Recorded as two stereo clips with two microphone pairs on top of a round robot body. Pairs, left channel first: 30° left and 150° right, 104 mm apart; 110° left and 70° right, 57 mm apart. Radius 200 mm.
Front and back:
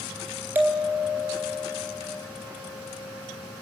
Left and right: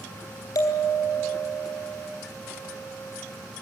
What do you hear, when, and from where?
0.6 s a bell: 135° left, 2 m